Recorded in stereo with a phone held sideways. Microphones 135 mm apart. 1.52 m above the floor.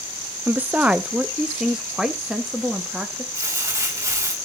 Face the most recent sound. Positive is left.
turn(degrees=-20)  # may be behind; listen again after turning